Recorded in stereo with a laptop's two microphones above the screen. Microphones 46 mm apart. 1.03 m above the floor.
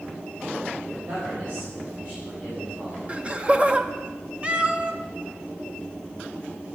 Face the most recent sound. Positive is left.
turn(degrees=-25)  # may be behind; listen again after turning